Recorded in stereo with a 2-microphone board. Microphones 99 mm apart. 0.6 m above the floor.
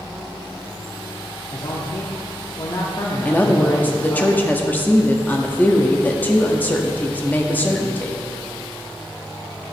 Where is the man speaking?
45° left (ahead or behind), 0.7 m.